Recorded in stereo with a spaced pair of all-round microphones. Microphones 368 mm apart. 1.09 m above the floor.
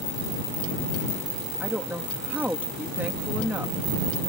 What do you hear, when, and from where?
1.6 s a woman speaking: 5° right (ahead or behind)